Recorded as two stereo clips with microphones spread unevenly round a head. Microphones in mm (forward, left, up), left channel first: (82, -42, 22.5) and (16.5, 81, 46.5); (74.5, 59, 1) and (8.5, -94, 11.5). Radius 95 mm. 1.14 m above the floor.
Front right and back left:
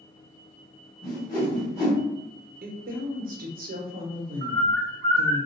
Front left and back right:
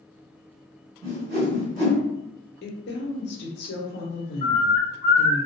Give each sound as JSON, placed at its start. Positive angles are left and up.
{"t": 1.0, "sound": "a whoosh", "azimuth_deg": -115, "distance_m": 1.4}
{"t": 2.6, "sound": "a woman speaking", "azimuth_deg": 100, "distance_m": 0.7}
{"t": 4.4, "sound": "a bird", "azimuth_deg": 130, "distance_m": 0.6}